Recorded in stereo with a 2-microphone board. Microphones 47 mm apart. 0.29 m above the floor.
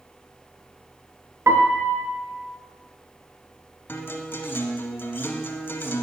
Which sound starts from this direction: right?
A piano, at 1.5 s.